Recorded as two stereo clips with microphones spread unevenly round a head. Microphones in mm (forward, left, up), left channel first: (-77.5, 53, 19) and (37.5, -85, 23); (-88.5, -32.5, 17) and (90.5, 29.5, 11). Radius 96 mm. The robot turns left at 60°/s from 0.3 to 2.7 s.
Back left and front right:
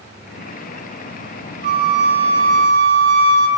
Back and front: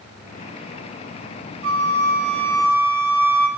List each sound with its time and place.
1.6 s a flute: 5° left, 0.7 m; by 3.5 s 60° right, 0.7 m